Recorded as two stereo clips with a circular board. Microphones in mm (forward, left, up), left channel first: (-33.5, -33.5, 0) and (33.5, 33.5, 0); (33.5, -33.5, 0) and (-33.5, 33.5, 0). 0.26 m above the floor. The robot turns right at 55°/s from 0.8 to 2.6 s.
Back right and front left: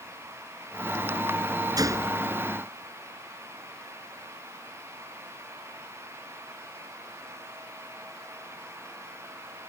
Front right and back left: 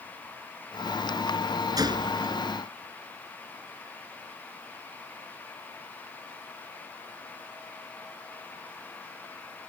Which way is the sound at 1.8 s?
90° left.